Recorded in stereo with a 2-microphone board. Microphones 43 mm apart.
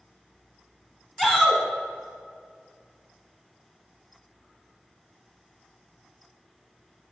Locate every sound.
1.2 s a shout: 5° left (ahead or behind), 1.2 m